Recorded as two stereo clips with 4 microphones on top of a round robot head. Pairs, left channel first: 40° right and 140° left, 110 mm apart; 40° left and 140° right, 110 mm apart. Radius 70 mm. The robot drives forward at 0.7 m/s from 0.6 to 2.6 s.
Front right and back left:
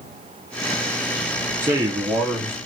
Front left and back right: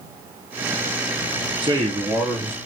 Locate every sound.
1.6 s a man speaking: 170° right, 0.7 m; by 2.6 s 175° right, 1.2 m